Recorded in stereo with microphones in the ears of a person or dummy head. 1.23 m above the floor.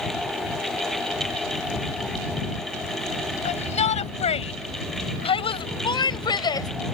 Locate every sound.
3.5 s a shout: 35° left (ahead or behind); by 6.7 s 20° left (ahead or behind)